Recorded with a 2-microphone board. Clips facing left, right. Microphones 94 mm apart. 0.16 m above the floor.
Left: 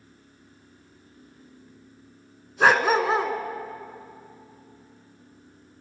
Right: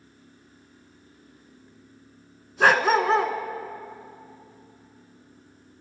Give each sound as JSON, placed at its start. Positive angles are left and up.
{"t": 2.6, "sound": "a dog barking", "side_deg": 5, "distance_m": 0.7}